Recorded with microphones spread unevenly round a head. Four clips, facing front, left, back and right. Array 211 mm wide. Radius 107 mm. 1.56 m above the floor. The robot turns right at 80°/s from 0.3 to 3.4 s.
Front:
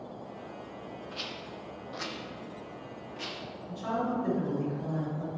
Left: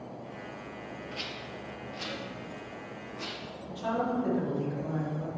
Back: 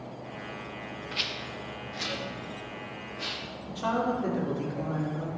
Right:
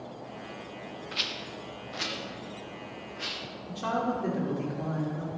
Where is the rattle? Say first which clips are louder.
Right 1 dB, back 3 dB; 125° right, 1.0 m; by 3.4 s 55° left, 1.0 m.